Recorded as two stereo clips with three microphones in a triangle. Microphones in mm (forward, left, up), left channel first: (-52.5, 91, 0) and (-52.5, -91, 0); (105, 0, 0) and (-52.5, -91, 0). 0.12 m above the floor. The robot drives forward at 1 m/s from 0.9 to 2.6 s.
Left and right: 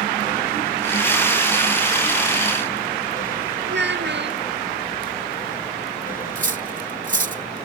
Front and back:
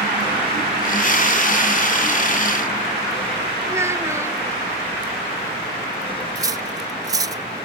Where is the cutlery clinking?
85° right.